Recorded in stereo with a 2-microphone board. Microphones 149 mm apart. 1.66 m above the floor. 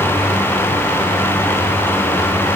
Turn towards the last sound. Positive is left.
No sound to turn to.